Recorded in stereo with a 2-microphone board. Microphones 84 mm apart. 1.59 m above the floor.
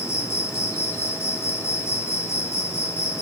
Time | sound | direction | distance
0.0 | an insect | 30° left (ahead or behind) | 2 m